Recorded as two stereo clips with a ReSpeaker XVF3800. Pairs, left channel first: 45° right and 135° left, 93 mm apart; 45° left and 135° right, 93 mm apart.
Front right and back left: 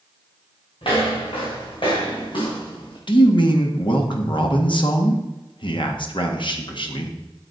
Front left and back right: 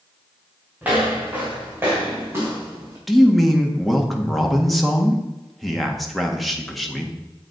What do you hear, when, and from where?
0.8 s footsteps: 65° right, 4.5 m; by 3.0 s 75° right, 3.5 m
3.1 s a man speaking: 45° right, 1.6 m